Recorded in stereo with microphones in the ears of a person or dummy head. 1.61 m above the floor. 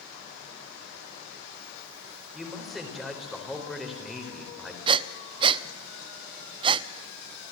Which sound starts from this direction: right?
Breathing, at 4.9 s.